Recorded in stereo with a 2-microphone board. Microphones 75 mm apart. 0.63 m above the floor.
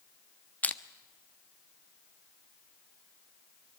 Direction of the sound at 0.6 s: 20° left (ahead or behind).